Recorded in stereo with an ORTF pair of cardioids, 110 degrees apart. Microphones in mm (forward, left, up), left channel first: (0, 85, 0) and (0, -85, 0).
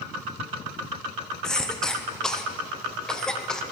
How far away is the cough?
About 0.9 m.